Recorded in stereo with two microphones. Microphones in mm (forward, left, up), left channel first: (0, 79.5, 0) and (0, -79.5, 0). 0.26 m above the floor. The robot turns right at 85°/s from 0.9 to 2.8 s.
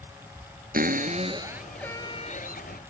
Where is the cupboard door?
70° right; by 2.8 s 90° left.